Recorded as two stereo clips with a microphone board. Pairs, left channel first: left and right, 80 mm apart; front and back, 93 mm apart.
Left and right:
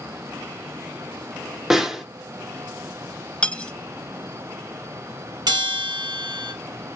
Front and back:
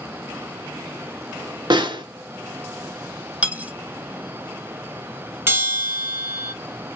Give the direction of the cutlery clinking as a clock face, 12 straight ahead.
7 o'clock.